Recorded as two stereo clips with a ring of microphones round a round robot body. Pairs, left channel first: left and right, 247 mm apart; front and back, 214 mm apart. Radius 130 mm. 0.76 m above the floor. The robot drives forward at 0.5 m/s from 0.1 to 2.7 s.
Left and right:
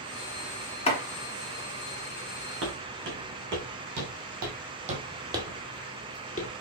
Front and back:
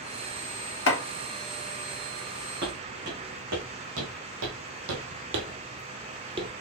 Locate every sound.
0.9 s chopping: 25° left, 1.4 m
2.6 s footsteps: 130° right, 3 m; by 6.5 s 120° left, 0.9 m